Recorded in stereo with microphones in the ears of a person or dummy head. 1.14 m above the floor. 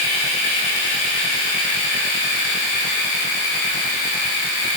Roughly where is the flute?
I don't hear a flute.